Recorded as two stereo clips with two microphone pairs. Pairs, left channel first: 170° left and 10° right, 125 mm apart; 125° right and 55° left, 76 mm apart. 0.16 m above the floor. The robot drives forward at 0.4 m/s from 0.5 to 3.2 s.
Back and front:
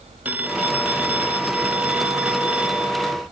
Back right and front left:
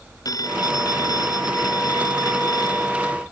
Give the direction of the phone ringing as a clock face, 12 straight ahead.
3 o'clock.